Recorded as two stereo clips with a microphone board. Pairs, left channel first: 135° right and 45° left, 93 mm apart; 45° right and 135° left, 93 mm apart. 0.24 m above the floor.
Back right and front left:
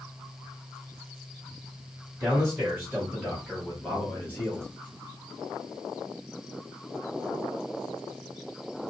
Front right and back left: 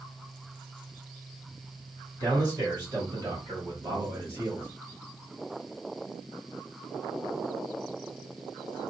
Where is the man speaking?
110° left, 1.6 m; by 4.7 s 175° right, 1.5 m.